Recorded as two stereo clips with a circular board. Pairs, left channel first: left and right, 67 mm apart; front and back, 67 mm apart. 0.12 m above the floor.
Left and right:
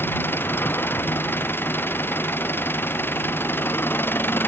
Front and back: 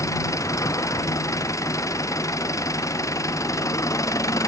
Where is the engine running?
35° left.